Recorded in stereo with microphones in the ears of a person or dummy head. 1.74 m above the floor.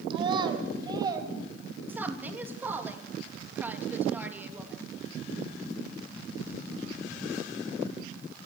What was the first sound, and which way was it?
A child speaking, 20° right (ahead or behind).